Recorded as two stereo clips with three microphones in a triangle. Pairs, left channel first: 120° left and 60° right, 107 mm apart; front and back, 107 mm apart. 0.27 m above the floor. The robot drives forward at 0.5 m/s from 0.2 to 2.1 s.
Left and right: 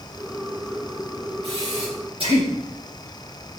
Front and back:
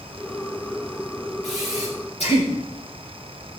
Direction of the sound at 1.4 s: 20° right.